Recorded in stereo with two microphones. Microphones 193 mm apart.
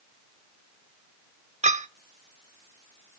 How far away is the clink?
About 0.6 m.